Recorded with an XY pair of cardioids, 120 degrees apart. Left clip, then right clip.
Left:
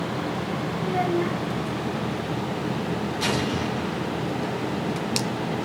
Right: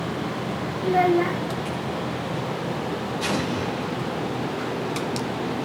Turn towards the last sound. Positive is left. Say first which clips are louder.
# left 1 dB
turn(degrees=55)